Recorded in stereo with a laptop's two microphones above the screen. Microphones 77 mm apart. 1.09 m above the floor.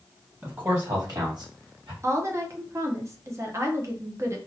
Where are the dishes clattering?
I don't hear dishes clattering.